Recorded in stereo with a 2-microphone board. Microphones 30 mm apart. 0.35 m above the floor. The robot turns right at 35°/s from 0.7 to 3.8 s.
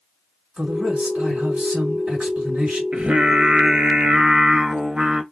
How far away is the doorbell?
No doorbell in this recording.